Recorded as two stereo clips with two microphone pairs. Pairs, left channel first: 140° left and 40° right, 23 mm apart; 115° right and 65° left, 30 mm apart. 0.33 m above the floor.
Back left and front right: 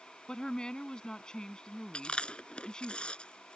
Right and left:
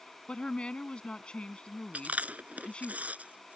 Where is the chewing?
100° left.